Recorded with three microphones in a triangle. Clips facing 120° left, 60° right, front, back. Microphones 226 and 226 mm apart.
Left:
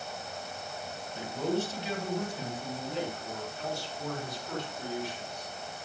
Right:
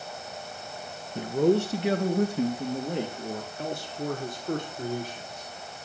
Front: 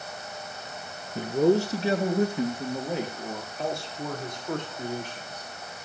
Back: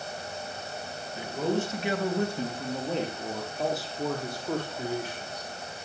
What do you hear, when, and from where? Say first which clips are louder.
1.1 s a man speaking: right 9 dB, front 7 dB; 35° right, 2.5 m; by 5.5 s 105° right, 7.5 m